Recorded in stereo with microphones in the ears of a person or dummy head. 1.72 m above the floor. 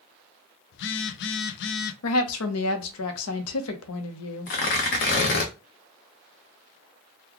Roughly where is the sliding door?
No sliding door in this recording.